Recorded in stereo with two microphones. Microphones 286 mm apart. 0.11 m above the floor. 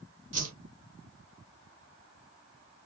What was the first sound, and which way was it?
A whoosh, 60° right (ahead or behind).